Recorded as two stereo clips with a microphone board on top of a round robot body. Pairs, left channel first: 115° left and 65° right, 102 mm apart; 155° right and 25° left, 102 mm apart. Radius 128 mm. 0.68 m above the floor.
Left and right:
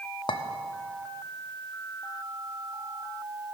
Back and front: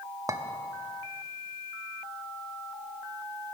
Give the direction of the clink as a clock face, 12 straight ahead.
9 o'clock.